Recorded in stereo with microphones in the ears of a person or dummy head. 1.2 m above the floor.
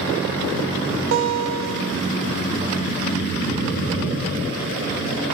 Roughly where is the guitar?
Right.